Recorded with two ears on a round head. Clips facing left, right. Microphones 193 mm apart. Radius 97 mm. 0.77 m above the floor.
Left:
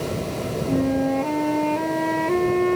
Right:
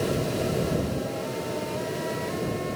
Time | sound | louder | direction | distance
0.7 | a flute | left 8 dB | 70° left (ahead or behind) | ?